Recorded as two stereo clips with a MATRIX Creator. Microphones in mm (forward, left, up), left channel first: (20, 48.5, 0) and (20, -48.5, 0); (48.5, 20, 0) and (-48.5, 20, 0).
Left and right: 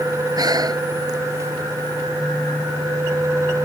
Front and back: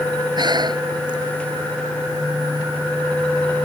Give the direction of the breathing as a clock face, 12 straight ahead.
5 o'clock.